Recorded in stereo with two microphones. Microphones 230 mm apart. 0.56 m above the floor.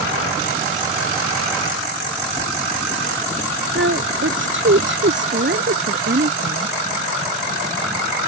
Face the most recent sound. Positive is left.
turn(degrees=-50)  # may be behind; listen again after turning